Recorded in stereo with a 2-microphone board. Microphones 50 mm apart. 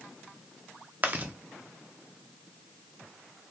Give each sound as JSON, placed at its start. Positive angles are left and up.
{"t": 1.0, "sound": "chewing", "side_deg": -35, "distance_m": 0.7}